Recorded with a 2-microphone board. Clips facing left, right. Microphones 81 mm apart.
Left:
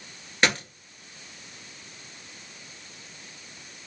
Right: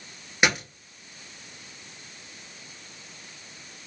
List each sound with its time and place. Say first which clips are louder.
0.4 s a dropped coin: right 1 dB; 10° right (ahead or behind), 1.1 m